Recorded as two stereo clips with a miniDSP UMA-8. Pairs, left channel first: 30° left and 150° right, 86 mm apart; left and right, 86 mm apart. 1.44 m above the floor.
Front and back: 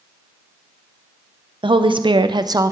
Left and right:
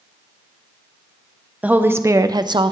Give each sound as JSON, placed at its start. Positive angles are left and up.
{"t": 1.6, "sound": "a woman speaking", "azimuth_deg": -160, "distance_m": 0.7}